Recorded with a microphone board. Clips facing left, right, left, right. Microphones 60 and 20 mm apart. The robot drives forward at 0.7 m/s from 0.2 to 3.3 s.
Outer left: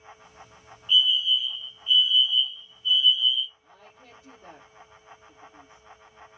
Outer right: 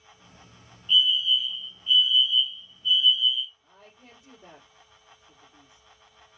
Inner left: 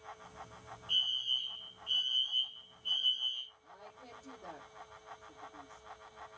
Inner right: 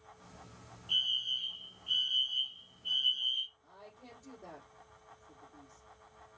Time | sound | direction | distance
0.9 | a fire alarm | 5° left (ahead or behind) | 2 m
3.6 | a woman speaking | 5° right (ahead or behind) | 3 m